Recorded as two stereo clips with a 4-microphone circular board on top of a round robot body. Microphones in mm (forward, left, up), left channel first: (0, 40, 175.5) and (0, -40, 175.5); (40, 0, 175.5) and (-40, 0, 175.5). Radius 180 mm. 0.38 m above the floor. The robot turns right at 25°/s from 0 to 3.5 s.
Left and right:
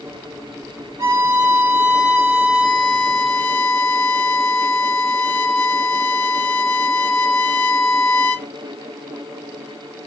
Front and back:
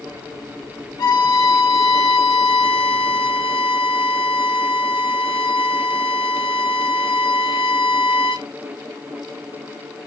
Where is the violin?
50° right, 1.0 m; by 8.5 s 15° left, 1.0 m.